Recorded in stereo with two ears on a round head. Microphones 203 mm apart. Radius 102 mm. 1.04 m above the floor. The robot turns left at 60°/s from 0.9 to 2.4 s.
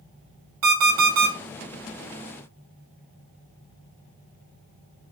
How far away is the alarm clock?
About 1.5 m.